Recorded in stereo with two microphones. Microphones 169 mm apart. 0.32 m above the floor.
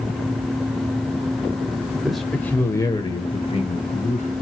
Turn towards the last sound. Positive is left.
turn(degrees=50)  # may be behind; listen again after turning